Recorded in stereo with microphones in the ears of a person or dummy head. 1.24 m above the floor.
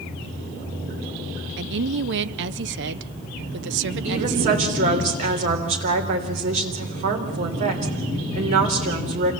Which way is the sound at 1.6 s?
60° right (ahead or behind).